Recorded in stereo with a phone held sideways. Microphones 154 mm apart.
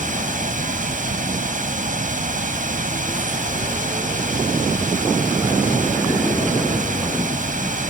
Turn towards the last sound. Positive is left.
turn(degrees=-60)  # may be behind; listen again after turning